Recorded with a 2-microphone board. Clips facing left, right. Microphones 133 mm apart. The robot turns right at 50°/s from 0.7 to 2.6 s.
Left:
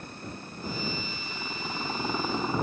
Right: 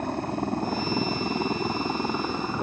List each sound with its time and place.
0.0 s a helicopter: 70° right (ahead or behind); by 2.6 s 10° left (ahead or behind)